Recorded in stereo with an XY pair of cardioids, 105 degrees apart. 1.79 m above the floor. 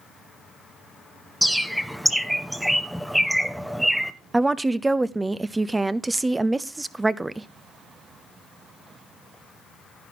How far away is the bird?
About 0.8 m.